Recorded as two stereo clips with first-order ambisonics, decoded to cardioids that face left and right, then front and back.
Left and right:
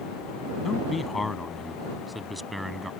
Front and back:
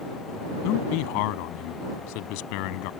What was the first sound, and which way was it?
A man speaking, 15° left.